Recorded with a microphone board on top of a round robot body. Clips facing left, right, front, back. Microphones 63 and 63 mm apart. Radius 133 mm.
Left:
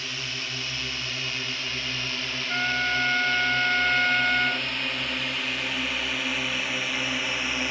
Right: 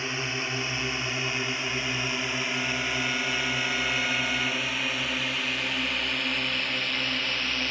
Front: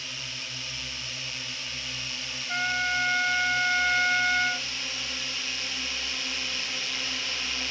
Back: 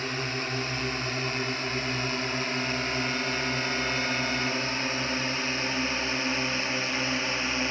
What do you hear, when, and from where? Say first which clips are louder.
0.0 s a drone: right 4 dB, back 9 dB; 150° right; by 7.7 s 155° left
2.5 s a trumpet: left 4 dB, front 2 dB; 40° left